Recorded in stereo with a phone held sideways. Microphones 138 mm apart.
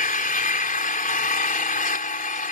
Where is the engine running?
75° left (ahead or behind).